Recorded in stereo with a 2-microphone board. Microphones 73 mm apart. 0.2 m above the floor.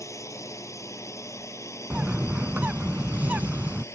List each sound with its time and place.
0.0 s a drone: 45° left (ahead or behind); by 4.0 s 40° left (ahead or behind)
1.9 s a bird: 20° right (ahead or behind)